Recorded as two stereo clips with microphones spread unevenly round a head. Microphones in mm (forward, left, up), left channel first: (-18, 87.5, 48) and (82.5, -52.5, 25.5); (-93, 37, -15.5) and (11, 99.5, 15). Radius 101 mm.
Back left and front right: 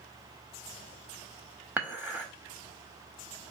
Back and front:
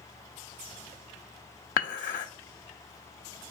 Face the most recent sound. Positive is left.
turn(degrees=-135)